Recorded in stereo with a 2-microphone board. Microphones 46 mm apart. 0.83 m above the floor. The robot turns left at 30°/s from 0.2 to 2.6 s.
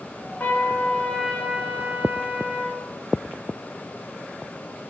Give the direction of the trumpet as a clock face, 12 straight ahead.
11 o'clock.